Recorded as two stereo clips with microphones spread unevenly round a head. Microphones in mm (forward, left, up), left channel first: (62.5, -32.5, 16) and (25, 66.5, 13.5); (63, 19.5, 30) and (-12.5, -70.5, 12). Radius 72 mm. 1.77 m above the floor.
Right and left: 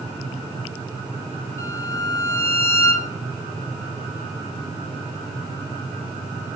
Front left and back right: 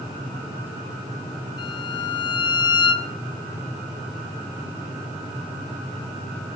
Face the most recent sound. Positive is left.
turn(degrees=-5)